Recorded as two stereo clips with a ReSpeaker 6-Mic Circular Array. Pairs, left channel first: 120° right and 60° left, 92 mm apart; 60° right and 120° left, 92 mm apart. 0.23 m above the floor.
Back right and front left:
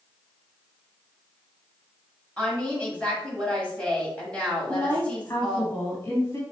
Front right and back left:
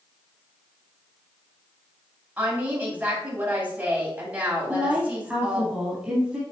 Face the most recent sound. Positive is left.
turn(degrees=-165)